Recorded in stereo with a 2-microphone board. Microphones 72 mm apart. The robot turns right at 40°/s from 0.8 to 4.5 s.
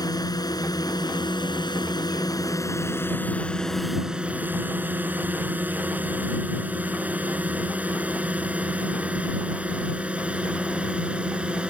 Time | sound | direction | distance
0.0 | a drone | 65° left (ahead or behind) | ?